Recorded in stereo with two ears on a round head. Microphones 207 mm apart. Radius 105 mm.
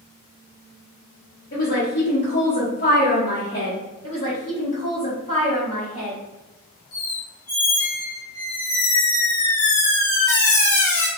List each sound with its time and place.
1.5 s a woman speaking: 35° left (ahead or behind), 0.9 m
4.0 s a woman speaking: 30° left (ahead or behind), 1.1 m
6.9 s a squeak: 65° left (ahead or behind), 1.5 m